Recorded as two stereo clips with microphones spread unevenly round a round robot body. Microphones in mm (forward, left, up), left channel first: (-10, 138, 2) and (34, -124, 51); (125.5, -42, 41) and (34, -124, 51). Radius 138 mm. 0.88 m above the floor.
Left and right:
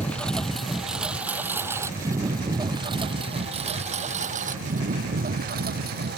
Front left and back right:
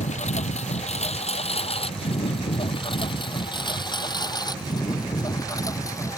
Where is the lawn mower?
15° left; by 6.2 s 25° right.